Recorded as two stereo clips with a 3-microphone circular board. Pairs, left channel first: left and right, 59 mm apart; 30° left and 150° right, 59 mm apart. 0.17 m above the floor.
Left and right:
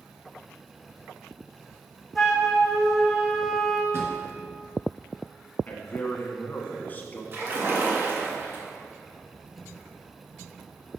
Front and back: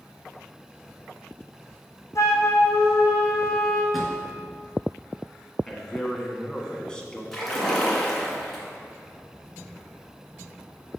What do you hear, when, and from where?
2.1 s a flute: 5° right, 2 m
3.9 s a drawer: 60° right, 1.6 m
5.7 s a man speaking: 95° left, 1.1 m
7.3 s a splash: 55° right, 2.0 m